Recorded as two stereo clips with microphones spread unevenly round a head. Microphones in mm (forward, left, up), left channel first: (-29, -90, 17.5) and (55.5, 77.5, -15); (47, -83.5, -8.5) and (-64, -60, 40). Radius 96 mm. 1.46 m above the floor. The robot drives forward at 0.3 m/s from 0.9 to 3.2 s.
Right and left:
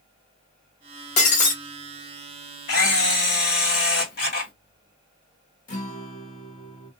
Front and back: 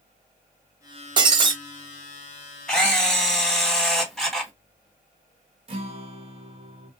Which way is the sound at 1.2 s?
160° right.